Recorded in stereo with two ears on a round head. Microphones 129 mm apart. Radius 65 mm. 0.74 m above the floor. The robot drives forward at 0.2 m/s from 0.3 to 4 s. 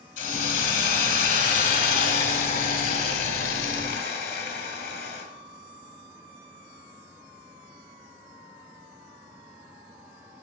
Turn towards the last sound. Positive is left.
turn(degrees=75)  # may be behind; listen again after turning